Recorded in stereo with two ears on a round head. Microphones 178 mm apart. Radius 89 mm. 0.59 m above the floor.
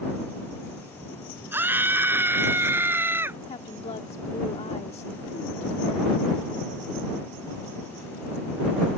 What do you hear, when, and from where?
1.5 s a scream: 10° right (ahead or behind)
3.5 s a woman speaking: 30° left (ahead or behind)